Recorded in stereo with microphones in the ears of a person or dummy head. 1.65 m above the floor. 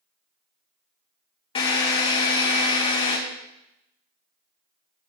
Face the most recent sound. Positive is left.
turn(degrees=35)  # may be behind; listen again after turning